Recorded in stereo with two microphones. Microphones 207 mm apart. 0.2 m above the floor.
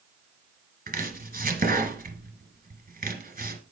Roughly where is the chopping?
Right.